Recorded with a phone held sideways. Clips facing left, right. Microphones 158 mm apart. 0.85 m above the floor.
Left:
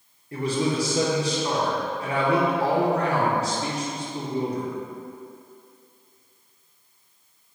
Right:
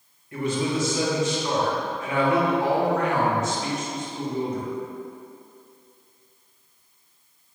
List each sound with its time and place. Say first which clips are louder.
0.3 s a man speaking: left 1 dB; 35° left (ahead or behind), 0.9 m